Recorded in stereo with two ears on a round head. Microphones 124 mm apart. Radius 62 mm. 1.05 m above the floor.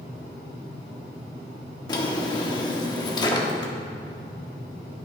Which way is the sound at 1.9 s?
30° left (ahead or behind).